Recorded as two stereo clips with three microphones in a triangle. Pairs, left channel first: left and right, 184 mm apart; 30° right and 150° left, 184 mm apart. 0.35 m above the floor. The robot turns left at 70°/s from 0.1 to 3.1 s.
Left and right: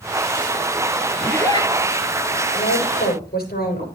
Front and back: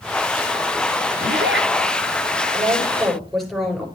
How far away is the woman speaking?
About 6 m.